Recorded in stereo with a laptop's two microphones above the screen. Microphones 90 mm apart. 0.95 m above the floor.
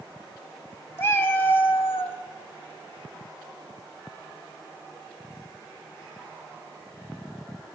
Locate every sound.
1.0 s a cat meowing: 30° left (ahead or behind), 0.9 m